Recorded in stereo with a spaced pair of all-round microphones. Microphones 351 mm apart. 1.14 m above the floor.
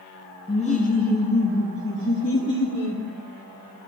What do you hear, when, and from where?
0.5 s laughter: 15° left (ahead or behind), 0.5 m; by 3.0 s 35° left (ahead or behind), 1.4 m